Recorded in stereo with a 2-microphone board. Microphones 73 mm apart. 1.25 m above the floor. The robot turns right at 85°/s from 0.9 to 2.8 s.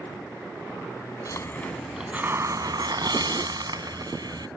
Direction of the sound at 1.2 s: 130° left.